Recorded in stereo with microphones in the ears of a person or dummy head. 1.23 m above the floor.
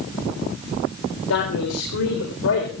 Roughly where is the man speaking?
Left.